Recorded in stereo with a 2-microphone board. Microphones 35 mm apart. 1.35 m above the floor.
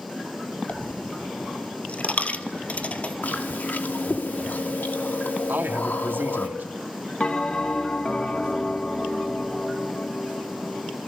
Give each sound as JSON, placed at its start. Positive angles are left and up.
{"t": 0.7, "sound": "a dropped coin", "side_deg": 35, "distance_m": 1.6}
{"t": 3.2, "sound": "chewing", "side_deg": 60, "distance_m": 2.5}
{"t": 5.5, "sound": "a man speaking", "side_deg": -75, "distance_m": 2.5}
{"t": 7.2, "sound": "a bell", "side_deg": 25, "distance_m": 1.6}